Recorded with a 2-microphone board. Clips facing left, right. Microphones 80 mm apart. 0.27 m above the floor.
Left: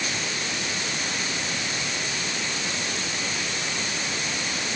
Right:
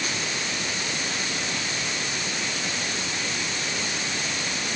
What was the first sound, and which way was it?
Only background noise.